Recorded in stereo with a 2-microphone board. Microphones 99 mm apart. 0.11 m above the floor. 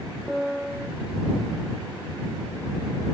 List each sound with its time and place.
0.3 s a piano: 5° right (ahead or behind)